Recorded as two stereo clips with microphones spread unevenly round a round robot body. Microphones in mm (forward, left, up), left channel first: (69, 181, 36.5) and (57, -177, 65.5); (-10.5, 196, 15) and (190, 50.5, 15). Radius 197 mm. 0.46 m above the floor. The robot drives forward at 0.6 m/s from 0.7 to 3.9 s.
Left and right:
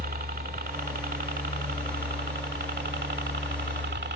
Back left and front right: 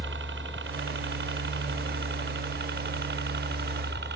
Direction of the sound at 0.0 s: 35° right.